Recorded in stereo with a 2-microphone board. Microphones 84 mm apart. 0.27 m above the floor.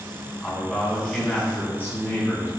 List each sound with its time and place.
0.4 s a man speaking: 5° left (ahead or behind), 2.5 m; by 2.5 s 30° left (ahead or behind), 3 m